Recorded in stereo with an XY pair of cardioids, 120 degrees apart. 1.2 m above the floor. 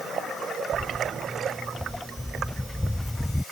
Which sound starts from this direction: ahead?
Footsteps, at 0.7 s.